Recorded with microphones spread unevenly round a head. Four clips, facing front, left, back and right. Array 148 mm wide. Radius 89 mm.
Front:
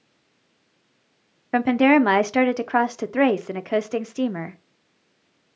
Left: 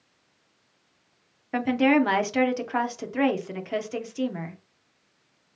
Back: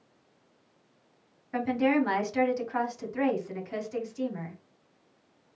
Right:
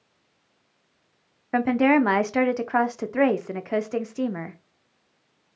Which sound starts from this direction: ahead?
A woman speaking, at 1.5 s.